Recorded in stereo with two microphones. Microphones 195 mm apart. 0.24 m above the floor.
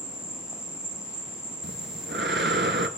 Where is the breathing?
75° right (ahead or behind), 0.9 m.